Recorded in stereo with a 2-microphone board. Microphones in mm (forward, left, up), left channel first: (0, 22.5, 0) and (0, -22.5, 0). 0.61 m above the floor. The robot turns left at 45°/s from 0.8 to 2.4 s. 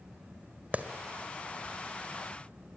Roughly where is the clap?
Right.